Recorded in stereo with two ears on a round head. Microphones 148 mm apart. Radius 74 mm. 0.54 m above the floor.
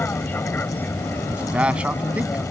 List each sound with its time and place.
0.0 s an aircraft: 10° left (ahead or behind)
1.3 s a man speaking: 10° right (ahead or behind)